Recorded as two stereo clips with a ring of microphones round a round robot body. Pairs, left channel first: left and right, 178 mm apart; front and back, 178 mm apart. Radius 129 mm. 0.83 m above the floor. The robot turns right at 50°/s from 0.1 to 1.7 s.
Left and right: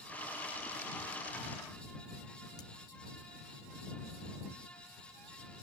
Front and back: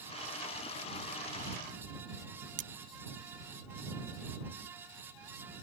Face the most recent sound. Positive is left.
turn(degrees=165)